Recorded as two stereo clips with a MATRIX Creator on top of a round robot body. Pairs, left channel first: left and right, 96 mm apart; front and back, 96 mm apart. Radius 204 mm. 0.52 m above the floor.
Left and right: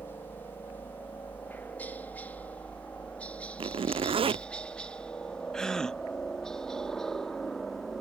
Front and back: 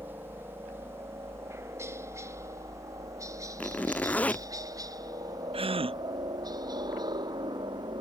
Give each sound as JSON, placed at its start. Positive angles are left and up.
{"t": 0.0, "sound": "a helicopter", "azimuth_deg": 135}
{"t": 3.6, "sound": "a zipper", "azimuth_deg": -75}
{"t": 5.5, "sound": "a gasp", "azimuth_deg": 175}